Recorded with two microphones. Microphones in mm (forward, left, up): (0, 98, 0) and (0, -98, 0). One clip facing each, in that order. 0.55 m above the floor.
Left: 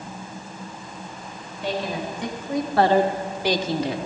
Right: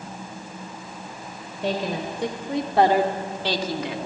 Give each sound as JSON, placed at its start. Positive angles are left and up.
{"t": 1.6, "sound": "a woman speaking", "side_deg": -50, "distance_m": 3.0}